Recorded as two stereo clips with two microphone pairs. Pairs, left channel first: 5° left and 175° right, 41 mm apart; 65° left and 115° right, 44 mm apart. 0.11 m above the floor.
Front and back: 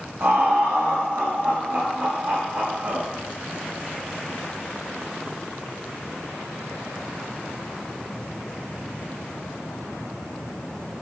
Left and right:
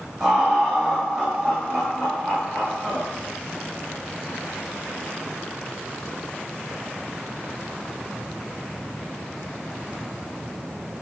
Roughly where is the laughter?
Behind.